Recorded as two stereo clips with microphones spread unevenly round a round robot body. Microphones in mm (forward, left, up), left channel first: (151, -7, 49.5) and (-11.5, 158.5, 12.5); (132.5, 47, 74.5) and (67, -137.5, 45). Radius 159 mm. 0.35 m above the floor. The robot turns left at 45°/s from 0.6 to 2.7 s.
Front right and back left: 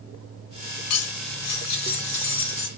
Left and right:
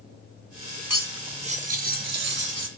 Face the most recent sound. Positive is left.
turn(degrees=-110)